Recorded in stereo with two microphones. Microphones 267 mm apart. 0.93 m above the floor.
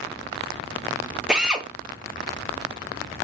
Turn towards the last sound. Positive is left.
turn(degrees=-5)  # may be behind; listen again after turning